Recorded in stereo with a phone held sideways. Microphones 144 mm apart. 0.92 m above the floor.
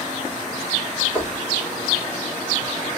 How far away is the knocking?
About 1.4 m.